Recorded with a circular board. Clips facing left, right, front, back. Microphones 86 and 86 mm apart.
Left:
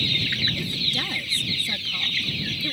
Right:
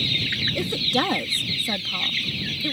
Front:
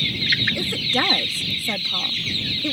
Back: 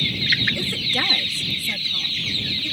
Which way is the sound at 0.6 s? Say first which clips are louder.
Right 7 dB, front 3 dB; 75° right.